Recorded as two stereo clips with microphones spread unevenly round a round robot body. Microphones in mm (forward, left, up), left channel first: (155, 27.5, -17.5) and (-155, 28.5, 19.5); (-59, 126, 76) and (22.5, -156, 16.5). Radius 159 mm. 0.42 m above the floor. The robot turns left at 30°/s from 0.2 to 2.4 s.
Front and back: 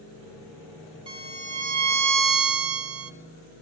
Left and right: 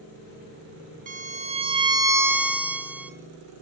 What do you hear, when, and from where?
1.1 s a violin: 105° right, 0.5 m; by 3.1 s 145° right, 0.5 m